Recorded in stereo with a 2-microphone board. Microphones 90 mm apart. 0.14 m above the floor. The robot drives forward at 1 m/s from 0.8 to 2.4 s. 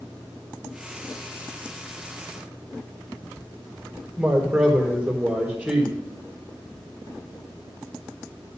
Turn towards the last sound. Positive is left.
turn(degrees=-15)  # may be behind; listen again after turning